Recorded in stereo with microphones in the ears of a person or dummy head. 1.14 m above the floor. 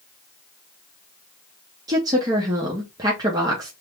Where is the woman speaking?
20° right (ahead or behind), 0.8 m.